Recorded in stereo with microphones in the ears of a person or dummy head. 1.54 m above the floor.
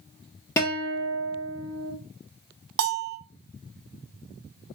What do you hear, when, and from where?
0.6 s a guitar: 15° left (ahead or behind), 1.2 m
2.8 s a bell: 65° right (ahead or behind), 0.5 m